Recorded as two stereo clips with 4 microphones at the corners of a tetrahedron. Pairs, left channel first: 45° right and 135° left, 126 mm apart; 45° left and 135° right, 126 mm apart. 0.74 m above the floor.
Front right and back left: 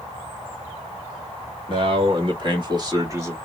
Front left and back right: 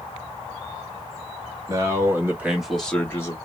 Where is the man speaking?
170° left, 1.7 m; by 3.4 s 85° left, 1.1 m.